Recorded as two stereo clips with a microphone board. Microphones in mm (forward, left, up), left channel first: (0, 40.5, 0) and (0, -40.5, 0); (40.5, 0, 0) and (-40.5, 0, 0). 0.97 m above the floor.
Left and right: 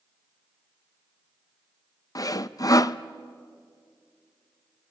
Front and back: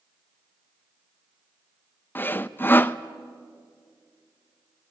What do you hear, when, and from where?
2.1 s sawing: 60° left, 0.6 m